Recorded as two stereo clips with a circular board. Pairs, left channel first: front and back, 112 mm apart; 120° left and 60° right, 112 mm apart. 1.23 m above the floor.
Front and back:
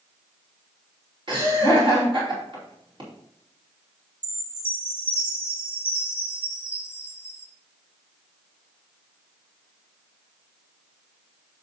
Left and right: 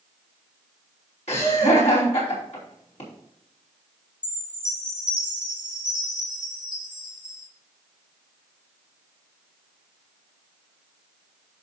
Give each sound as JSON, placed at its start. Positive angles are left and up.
{"t": 1.3, "sound": "laughter", "azimuth_deg": 135, "distance_m": 3.0}
{"t": 4.2, "sound": "a chime", "azimuth_deg": -105, "distance_m": 2.5}